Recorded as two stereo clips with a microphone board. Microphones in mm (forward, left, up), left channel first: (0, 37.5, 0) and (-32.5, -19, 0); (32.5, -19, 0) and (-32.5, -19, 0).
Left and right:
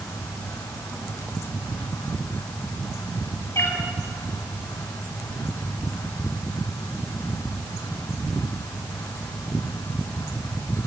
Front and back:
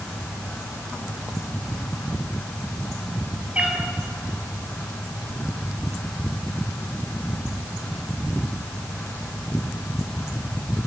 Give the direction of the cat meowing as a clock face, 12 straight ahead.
8 o'clock.